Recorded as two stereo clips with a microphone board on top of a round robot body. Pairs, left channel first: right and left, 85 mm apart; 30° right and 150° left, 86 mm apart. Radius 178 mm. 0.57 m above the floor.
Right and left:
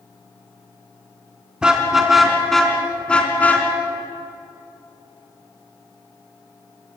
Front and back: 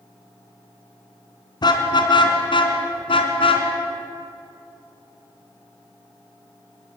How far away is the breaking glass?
I don't hear breaking glass.